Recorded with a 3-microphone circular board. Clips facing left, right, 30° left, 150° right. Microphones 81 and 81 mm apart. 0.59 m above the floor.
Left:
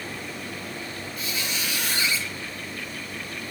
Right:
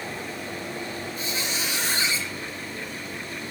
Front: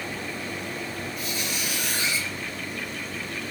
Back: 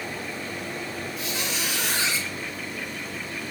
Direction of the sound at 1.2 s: 150° right.